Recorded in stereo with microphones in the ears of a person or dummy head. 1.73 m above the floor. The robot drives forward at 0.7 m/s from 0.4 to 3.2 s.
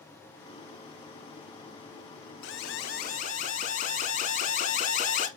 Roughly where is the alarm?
Left.